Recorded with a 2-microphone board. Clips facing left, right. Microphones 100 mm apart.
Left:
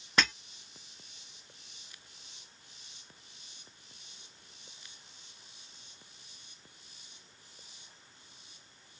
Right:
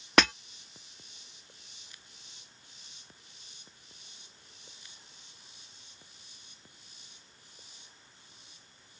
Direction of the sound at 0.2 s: 80° right.